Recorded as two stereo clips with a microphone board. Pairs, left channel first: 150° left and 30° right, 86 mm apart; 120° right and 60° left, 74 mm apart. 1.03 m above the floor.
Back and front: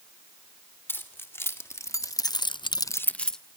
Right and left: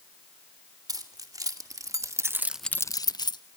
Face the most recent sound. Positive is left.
turn(degrees=-130)